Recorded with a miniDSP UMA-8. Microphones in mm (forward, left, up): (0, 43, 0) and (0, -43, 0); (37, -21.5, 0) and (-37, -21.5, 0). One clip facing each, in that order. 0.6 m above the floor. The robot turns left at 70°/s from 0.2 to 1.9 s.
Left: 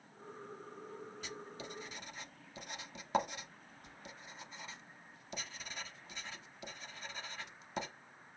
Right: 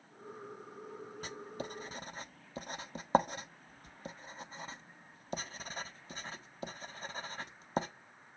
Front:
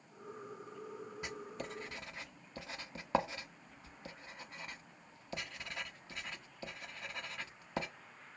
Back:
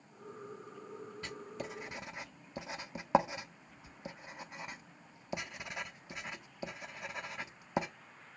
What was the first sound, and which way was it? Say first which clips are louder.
Writing: right 4 dB, back 1 dB; 70° right.